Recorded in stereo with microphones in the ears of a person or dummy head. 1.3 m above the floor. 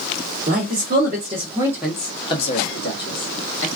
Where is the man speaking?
50° right (ahead or behind), 0.9 m; by 3.7 s 60° left (ahead or behind), 1.1 m.